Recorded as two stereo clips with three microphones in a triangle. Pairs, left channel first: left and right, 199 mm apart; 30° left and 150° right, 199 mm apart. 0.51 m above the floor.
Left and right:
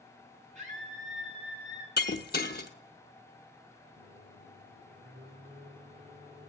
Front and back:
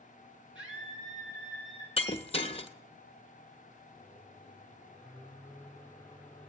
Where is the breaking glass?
80° left, 0.8 m.